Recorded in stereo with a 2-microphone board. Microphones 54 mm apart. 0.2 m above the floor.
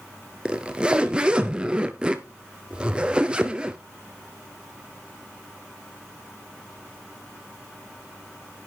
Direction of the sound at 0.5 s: 20° right (ahead or behind).